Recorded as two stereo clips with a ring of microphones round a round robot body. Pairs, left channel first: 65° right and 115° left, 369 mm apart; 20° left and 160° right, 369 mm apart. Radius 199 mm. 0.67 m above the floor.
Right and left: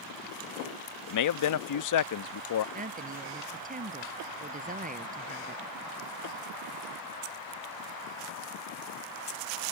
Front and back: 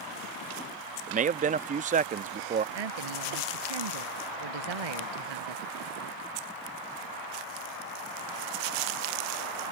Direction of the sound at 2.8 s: Straight behind.